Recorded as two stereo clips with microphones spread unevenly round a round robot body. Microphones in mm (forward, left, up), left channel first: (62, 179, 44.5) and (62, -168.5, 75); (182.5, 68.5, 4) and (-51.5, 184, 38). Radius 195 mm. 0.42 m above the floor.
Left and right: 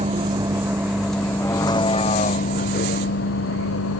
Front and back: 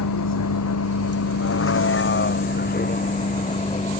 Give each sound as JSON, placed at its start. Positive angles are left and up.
{"t": 0.0, "sound": "a vehicle", "azimuth_deg": -15}